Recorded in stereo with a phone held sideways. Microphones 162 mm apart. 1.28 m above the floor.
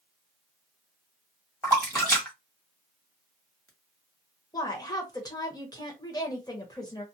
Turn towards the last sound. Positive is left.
turn(degrees=25)  # may be behind; listen again after turning